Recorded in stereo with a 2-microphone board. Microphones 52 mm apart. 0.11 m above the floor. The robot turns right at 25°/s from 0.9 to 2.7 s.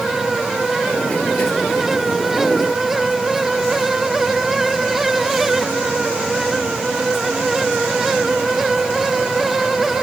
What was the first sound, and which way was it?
Only background noise.